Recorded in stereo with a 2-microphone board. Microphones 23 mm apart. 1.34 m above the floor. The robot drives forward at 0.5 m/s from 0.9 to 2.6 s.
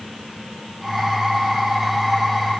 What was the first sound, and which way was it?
Only background noise.